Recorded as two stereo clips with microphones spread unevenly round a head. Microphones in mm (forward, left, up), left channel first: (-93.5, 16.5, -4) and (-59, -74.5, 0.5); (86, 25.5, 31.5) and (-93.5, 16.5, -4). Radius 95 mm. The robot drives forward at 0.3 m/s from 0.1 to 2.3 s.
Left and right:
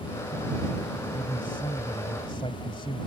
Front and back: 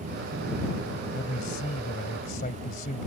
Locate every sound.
1.1 s a man speaking: 45° left